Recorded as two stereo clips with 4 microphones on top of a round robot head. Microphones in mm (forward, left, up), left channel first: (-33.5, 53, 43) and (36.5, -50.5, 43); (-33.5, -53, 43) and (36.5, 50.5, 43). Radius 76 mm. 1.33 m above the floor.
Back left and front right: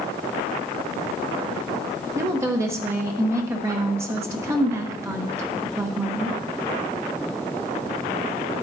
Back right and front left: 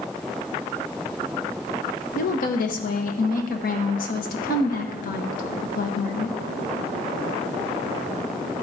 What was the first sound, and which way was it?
A woman speaking, 125° right.